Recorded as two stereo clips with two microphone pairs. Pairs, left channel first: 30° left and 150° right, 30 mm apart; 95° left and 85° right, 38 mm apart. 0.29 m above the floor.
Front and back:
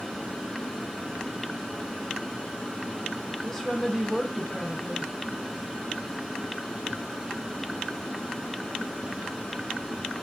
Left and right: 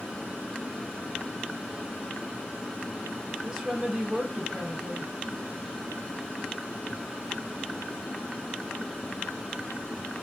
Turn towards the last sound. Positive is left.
turn(degrees=-15)